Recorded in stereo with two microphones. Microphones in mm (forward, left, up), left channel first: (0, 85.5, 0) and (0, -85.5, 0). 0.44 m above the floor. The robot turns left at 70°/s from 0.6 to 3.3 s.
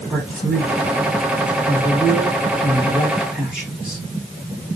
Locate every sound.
0.1 s a man speaking: 5° right (ahead or behind), 3.5 m